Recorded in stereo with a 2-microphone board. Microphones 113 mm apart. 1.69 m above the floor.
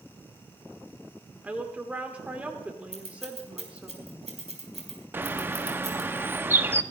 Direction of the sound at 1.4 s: 10° right (ahead or behind).